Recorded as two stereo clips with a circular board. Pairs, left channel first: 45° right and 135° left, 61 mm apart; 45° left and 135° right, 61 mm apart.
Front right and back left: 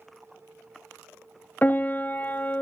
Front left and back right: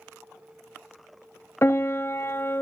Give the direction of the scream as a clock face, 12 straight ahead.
I don't hear a scream.